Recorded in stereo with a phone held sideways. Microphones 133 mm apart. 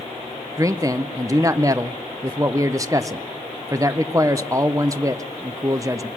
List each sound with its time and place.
0.6 s a man speaking: 25° right (ahead or behind), 0.5 m